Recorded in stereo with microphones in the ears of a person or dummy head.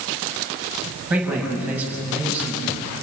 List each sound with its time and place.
1.1 s a man speaking: 5° right (ahead or behind), 7 m